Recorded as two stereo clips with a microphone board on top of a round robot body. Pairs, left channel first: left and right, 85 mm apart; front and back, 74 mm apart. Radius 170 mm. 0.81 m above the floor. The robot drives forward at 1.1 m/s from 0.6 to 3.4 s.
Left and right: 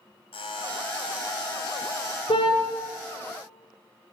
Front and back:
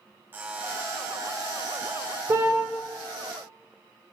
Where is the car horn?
120° left, 2.5 m; by 2.6 s 125° left, 2.5 m.